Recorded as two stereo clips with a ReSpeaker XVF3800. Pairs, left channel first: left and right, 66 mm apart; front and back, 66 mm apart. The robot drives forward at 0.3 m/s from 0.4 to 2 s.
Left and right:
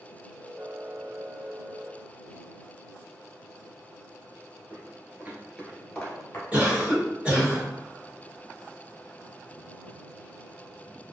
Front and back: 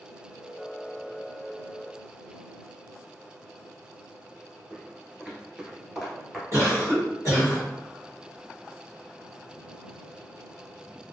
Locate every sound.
4.7 s footsteps: 110° right, 1.3 m; by 6.4 s 85° left, 1.0 m
6.5 s a cough: 155° right, 1.4 m